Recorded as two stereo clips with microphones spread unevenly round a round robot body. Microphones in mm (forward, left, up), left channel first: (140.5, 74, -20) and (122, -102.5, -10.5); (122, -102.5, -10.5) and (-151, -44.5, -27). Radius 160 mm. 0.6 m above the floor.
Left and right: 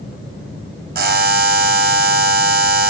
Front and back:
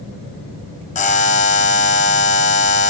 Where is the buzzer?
75° right, 0.7 m.